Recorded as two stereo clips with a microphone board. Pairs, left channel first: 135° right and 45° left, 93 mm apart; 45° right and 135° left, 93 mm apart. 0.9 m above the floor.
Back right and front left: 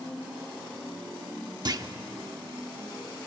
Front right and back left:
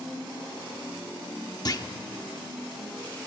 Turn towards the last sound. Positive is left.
turn(degrees=0)